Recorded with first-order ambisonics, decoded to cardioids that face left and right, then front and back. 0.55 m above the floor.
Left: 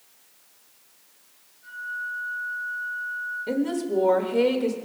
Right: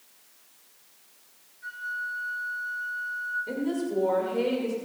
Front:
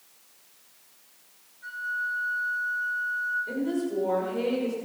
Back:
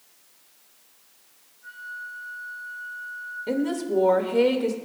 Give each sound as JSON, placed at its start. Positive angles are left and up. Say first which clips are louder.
{"t": 1.6, "sound": "a flute", "louder": "left 1 dB, front 7 dB", "azimuth_deg": -50, "distance_m": 4.5}
{"t": 3.5, "sound": "a woman speaking", "louder": "left 4 dB, back 3 dB", "azimuth_deg": 150, "distance_m": 2.0}